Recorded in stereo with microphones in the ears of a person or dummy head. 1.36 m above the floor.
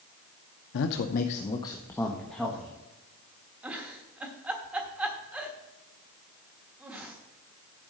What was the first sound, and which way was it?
A man speaking, 70° left (ahead or behind).